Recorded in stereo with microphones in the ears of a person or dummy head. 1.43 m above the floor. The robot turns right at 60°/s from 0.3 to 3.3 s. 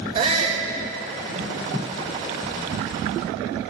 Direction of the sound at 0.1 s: 30° right (ahead or behind).